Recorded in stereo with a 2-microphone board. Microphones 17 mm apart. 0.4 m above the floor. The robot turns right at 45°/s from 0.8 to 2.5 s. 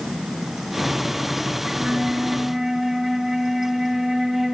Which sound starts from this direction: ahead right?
A flute, at 1.7 s.